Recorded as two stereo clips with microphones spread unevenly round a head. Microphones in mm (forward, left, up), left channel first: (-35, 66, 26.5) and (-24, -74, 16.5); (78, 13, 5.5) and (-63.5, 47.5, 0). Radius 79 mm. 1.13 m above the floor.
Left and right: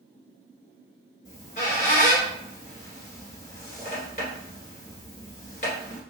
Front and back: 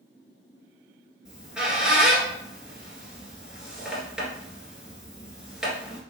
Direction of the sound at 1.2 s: 80° left.